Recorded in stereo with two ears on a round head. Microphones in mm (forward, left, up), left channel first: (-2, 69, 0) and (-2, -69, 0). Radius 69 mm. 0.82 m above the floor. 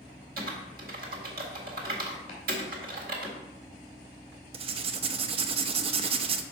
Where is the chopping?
40° left (ahead or behind), 2.5 m.